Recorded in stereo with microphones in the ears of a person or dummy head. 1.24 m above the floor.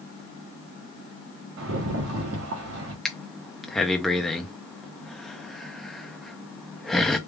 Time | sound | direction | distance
1.6 | a rattle | 70° right (ahead or behind) | 1.2 m
3.0 | breathing | centre (ahead or behind) | 0.5 m